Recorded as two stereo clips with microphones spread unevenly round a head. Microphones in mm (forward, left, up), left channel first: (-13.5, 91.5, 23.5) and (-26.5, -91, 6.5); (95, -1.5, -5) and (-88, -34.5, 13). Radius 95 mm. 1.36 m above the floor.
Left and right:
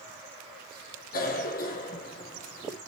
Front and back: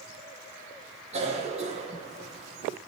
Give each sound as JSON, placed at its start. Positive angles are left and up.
{"t": 1.1, "sound": "a cough", "azimuth_deg": 130, "distance_m": 1.5}